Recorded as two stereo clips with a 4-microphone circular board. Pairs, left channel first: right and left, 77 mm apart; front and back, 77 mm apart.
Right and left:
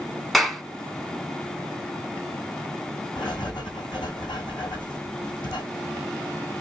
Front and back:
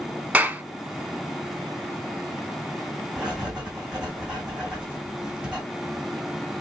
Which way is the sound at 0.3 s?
Straight behind.